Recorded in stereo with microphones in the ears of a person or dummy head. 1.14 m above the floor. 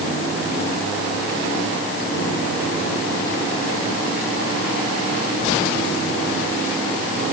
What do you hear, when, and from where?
Only background noise.